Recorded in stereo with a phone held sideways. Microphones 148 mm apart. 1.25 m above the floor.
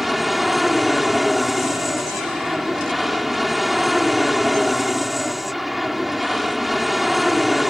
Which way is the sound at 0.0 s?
Centre (ahead or behind).